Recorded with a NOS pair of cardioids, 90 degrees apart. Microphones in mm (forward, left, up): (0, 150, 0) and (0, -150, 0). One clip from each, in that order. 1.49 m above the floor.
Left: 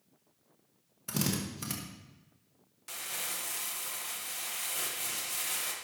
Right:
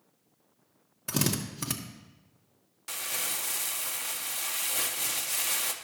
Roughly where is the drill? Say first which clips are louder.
Right 4 dB; ahead right.